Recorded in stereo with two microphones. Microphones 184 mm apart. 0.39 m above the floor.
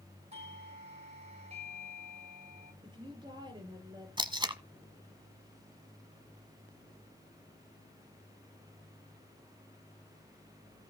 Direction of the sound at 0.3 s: 40° right (ahead or behind).